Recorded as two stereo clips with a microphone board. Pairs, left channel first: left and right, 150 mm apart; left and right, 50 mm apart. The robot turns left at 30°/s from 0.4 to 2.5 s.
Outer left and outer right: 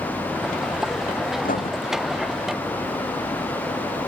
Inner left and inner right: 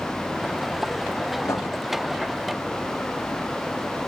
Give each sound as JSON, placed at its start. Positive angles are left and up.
{"t": 1.4, "sound": "writing", "side_deg": 65}